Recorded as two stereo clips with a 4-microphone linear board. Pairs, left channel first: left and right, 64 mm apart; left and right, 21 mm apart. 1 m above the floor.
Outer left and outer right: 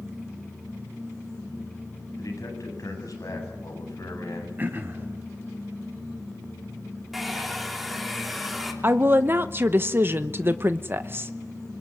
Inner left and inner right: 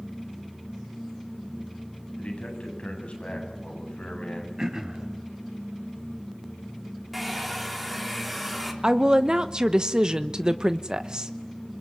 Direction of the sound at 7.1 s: Centre (ahead or behind).